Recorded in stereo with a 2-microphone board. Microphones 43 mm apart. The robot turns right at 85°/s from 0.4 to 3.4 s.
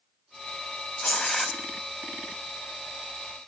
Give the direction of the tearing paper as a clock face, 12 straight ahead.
7 o'clock.